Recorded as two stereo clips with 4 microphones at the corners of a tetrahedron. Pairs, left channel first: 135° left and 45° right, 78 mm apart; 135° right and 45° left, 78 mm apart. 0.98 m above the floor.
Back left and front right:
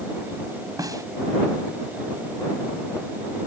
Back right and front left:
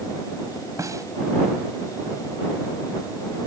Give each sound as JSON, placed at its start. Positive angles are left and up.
{"t": 0.8, "sound": "a snare drum", "azimuth_deg": 0}